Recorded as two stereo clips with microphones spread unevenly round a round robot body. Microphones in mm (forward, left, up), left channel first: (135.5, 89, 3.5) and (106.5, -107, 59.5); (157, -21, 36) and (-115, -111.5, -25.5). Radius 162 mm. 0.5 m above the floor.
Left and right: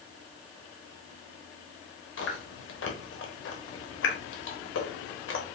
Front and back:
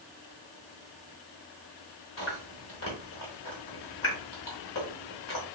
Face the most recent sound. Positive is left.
turn(degrees=75)